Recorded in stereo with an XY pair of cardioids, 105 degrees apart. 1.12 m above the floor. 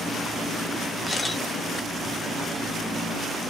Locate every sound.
1.1 s a camera shutter: 10° left, 1.2 m